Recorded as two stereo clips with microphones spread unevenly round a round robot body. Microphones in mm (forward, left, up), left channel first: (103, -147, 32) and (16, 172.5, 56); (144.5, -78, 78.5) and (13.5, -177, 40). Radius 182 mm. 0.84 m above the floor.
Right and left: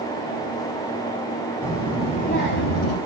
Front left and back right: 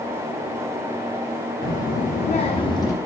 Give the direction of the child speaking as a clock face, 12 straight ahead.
12 o'clock.